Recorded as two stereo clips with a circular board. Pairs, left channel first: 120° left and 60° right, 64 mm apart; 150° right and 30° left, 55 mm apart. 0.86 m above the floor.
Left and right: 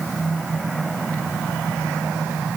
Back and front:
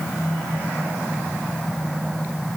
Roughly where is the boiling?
No boiling in this recording.